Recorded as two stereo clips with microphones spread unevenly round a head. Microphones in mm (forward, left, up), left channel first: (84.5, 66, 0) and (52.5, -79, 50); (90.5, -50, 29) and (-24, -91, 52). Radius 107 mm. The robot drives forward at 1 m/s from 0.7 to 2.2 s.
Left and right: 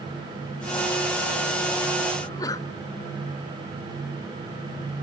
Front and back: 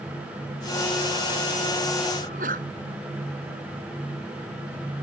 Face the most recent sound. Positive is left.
turn(degrees=155)